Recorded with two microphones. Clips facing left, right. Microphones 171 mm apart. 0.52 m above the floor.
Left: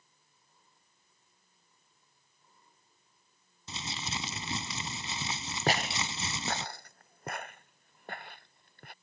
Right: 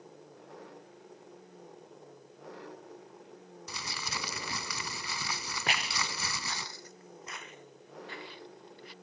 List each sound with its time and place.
0.0 s an engine running: 85° right
3.7 s crumpling: 25° left (ahead or behind)
5.7 s footsteps: 40° left (ahead or behind); by 8.9 s 55° left (ahead or behind)